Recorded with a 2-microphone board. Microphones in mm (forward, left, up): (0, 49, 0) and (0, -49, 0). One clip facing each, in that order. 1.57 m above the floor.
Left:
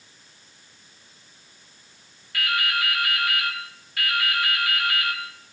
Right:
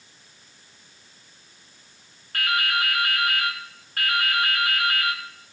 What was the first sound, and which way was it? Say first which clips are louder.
Dripping: right 1 dB; 45° right (ahead or behind).